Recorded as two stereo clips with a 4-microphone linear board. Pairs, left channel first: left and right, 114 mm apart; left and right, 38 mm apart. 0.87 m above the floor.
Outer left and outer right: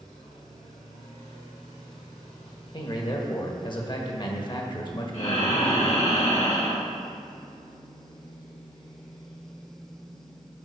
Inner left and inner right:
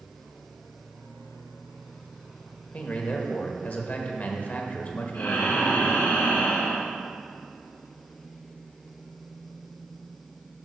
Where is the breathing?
65° left (ahead or behind), 1.7 m.